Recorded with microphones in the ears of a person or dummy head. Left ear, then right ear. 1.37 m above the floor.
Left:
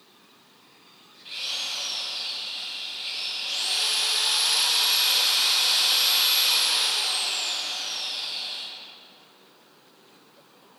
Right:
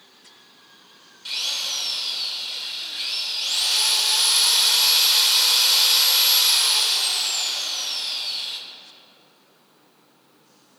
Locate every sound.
1.2 s a drill: 55° right (ahead or behind), 6.5 m